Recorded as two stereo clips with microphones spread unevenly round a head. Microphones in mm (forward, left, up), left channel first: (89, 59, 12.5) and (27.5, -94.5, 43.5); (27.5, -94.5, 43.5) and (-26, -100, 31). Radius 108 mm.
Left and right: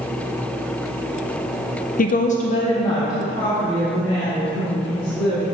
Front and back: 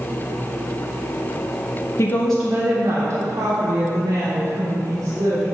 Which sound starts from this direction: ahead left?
A woman speaking, at 2.0 s.